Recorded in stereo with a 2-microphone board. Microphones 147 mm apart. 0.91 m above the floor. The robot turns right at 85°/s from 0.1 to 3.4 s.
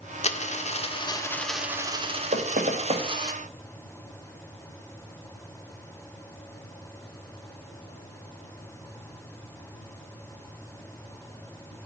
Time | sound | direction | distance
0.2 | a dropped coin | 70° left | 0.7 m
2.3 | knocking | 75° right (ahead or behind) | 1.0 m